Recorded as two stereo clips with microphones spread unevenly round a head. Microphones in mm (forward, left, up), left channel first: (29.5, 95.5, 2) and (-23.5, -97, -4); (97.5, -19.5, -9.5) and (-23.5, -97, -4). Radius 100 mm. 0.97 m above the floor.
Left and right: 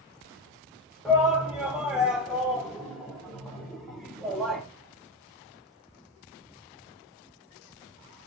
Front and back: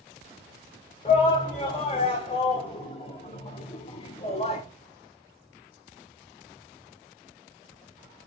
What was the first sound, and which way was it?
A shout, 20° right.